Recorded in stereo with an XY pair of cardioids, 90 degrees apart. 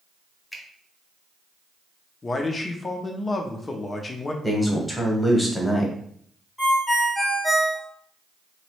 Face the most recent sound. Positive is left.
turn(degrees=10)